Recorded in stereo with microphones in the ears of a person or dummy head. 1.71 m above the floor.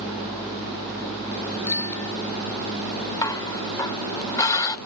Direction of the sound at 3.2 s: 15° left (ahead or behind).